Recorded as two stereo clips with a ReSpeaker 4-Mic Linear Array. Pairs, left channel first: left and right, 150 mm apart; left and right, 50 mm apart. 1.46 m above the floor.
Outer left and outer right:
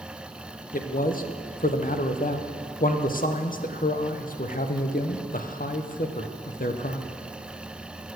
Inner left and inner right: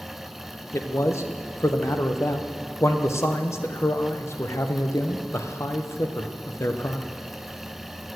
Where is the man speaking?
65° left (ahead or behind), 0.7 m.